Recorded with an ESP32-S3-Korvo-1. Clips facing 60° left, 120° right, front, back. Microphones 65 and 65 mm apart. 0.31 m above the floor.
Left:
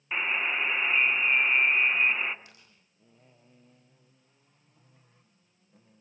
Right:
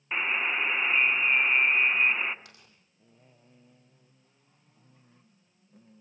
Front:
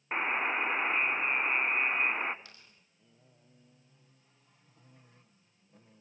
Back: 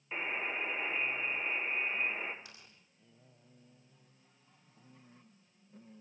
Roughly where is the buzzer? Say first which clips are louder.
Even, front 7 dB; ahead right.